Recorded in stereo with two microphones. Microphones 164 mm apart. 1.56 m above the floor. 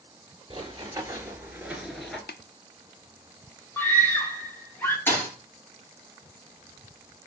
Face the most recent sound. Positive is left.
turn(degrees=15)  # may be behind; listen again after turning